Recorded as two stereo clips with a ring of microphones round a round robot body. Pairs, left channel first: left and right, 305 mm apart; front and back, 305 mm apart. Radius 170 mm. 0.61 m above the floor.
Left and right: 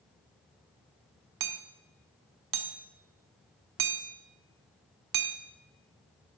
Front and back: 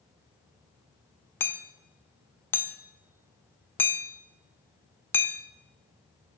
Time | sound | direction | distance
1.4 | hammering | 85° right | 1.3 m